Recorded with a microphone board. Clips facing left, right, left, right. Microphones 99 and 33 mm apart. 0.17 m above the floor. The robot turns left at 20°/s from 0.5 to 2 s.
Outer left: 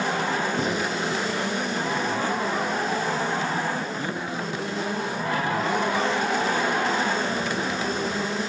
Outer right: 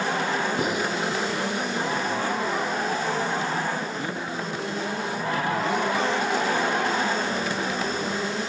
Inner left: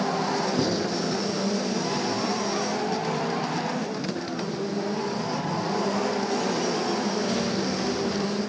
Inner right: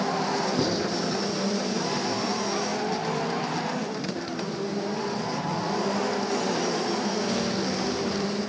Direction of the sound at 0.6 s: 10° right (ahead or behind).